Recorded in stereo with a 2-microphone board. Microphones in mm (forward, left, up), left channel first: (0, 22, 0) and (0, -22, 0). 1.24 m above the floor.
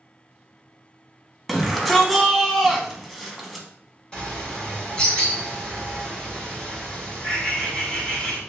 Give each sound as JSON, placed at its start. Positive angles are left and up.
{"t": 1.5, "sound": "a shout", "side_deg": 0, "distance_m": 1.0}
{"t": 4.1, "sound": "a bird", "side_deg": 25, "distance_m": 1.5}